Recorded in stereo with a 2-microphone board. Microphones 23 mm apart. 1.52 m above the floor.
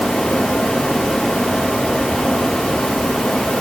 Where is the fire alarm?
I don't hear a fire alarm.